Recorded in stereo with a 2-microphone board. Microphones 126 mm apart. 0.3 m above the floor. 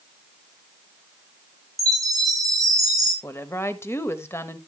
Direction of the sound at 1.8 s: 30° right (ahead or behind).